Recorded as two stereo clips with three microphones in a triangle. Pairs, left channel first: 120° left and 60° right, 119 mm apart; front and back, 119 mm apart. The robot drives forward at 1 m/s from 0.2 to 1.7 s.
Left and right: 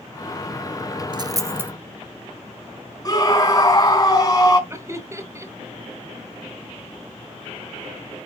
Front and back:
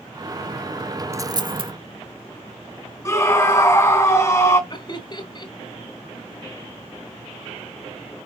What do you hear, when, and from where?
1.1 s a dropped coin: 115° right, 1.0 m; by 1.7 s 135° right, 1.3 m
3.0 s a scream: 65° left, 3 m
4.7 s laughter: 10° right, 1.5 m